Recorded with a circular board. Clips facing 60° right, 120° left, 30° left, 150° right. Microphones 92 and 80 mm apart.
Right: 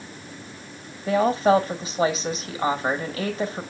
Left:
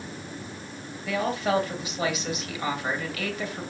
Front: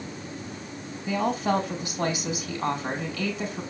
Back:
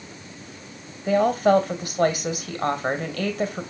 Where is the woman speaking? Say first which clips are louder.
Right 7 dB, back 7 dB; 115° right, 2.5 m.